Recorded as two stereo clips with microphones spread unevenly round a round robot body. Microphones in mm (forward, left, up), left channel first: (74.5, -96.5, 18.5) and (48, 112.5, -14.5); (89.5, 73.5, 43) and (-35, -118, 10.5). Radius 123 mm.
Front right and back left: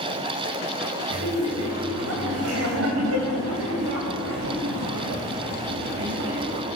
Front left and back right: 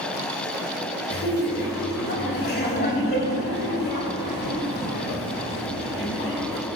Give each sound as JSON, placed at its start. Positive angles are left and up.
{"t": 1.1, "sound": "laughter", "azimuth_deg": 110, "distance_m": 3.0}